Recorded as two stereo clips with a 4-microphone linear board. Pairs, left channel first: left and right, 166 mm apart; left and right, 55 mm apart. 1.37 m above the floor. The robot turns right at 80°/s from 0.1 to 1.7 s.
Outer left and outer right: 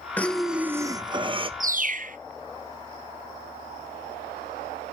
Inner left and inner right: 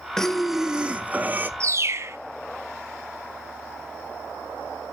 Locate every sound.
0.2 s breathing: 160° left, 0.6 m; by 1.5 s 90° right, 0.6 m
1.6 s a bird: 55° right (ahead or behind), 0.6 m